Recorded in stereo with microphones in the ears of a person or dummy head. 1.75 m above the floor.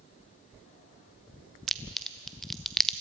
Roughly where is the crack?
Centre.